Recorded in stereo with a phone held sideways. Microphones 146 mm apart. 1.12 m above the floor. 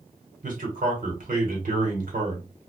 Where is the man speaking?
65° right (ahead or behind), 1.3 m.